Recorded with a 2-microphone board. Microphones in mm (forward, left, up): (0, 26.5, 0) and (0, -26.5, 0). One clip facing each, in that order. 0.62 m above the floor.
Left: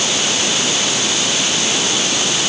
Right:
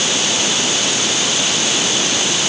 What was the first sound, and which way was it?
Only background noise.